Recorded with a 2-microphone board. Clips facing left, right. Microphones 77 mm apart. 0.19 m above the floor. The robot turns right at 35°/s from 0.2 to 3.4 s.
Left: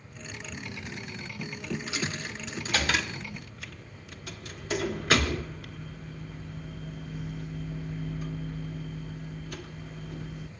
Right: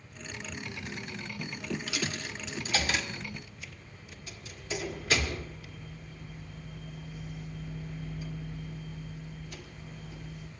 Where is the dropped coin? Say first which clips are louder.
Left 2 dB; 30° left (ahead or behind), 1.2 m; by 10.5 s 65° left (ahead or behind), 1.2 m.